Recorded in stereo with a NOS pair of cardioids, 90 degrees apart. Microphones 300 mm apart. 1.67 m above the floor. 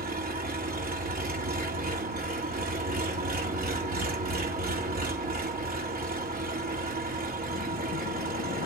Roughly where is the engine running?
Ahead right.